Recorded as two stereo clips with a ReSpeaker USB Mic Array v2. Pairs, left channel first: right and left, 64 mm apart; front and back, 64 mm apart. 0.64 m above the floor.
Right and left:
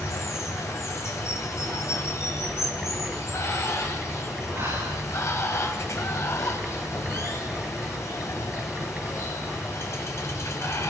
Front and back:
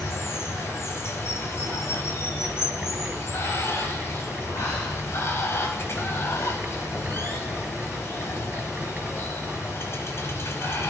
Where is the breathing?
40° left, 9.5 m.